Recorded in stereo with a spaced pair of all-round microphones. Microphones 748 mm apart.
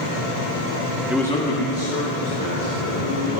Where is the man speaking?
5° right (ahead or behind), 0.7 m; by 3.4 s 30° left (ahead or behind), 3 m.